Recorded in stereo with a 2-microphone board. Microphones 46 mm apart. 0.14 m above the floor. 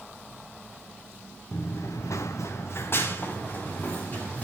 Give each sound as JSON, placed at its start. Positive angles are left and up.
{"t": 1.5, "sound": "running footsteps", "side_deg": 45, "distance_m": 1.1}